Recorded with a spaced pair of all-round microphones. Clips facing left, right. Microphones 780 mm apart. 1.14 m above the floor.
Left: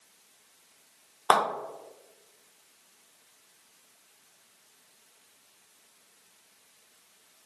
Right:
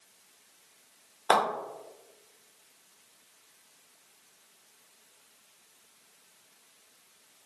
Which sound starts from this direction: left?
A clap, at 1.3 s.